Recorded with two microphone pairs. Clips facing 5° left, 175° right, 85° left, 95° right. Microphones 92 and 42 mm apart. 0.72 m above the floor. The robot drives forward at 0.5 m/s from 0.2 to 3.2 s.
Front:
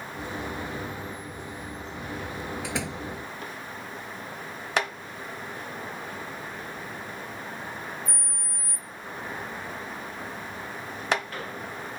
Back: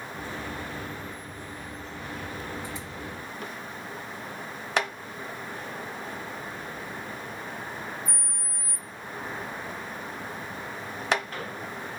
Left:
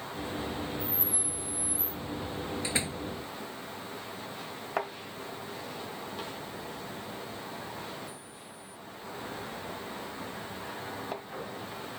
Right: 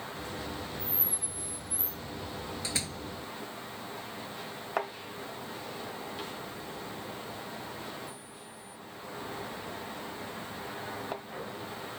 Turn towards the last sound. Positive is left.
turn(degrees=15)